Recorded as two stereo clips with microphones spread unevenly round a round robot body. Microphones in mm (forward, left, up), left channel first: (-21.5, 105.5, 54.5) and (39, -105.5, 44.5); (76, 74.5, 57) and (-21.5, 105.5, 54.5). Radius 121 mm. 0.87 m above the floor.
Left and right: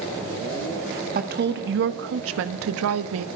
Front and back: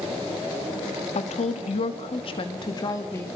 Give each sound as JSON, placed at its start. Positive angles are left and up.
{"t": 1.1, "sound": "a woman speaking", "azimuth_deg": -25, "distance_m": 1.5}